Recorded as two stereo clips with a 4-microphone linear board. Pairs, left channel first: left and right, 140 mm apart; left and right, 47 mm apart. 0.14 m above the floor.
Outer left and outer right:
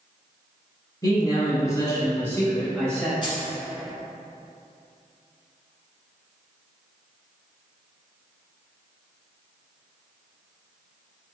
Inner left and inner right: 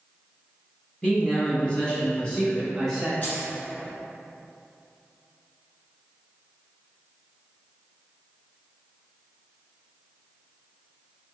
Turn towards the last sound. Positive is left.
turn(degrees=35)  # may be behind; listen again after turning